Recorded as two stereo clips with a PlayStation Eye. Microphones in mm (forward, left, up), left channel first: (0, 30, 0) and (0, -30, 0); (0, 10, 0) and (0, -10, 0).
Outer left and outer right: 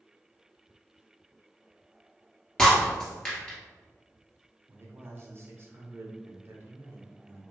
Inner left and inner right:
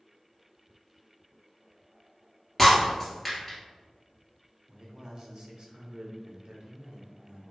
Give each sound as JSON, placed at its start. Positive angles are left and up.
{"t": 2.6, "sound": "breaking glass", "side_deg": 10, "distance_m": 1.8}
{"t": 4.7, "sound": "a man speaking", "side_deg": -40, "distance_m": 1.0}